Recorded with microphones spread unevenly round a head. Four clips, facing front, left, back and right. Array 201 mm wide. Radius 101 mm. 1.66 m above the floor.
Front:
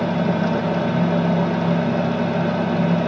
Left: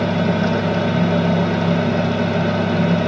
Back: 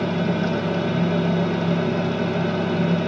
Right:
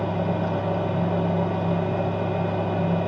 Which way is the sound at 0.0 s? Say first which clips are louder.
Left 7 dB, front 2 dB; 75° left.